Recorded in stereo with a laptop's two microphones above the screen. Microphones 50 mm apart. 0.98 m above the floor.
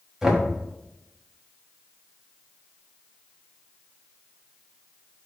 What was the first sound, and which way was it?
Knocking, 10° right (ahead or behind).